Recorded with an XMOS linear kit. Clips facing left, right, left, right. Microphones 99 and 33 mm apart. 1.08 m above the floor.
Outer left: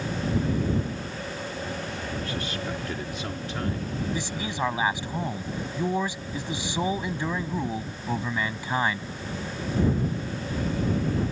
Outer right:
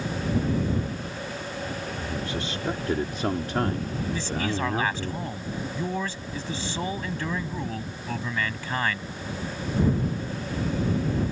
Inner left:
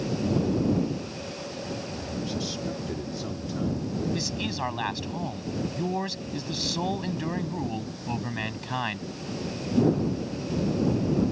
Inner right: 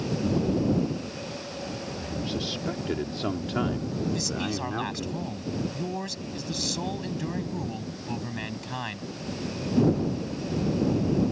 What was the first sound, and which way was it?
A man speaking, 20° right (ahead or behind).